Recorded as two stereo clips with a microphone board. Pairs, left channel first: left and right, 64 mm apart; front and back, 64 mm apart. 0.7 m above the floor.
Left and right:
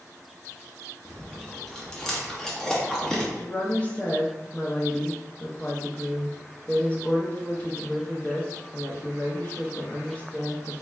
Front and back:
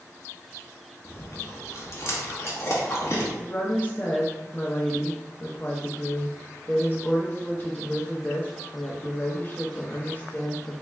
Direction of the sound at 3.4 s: 45° left.